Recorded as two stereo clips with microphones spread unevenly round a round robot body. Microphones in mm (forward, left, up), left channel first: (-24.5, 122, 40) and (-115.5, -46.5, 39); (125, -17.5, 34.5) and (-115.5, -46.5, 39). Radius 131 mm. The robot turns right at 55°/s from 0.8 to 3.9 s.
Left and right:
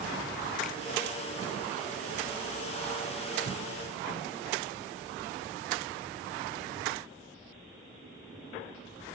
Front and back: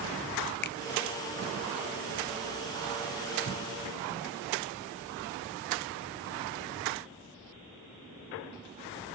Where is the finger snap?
25° right, 0.6 m.